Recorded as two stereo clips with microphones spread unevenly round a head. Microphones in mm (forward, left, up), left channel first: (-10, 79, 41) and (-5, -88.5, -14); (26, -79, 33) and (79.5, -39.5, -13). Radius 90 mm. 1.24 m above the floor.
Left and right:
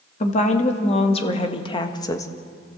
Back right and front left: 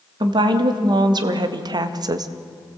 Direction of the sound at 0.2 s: 40° left.